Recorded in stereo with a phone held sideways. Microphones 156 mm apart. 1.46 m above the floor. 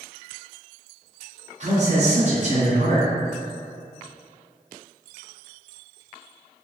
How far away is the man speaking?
About 0.9 m.